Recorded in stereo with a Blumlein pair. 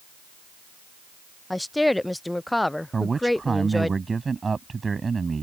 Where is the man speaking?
15° right.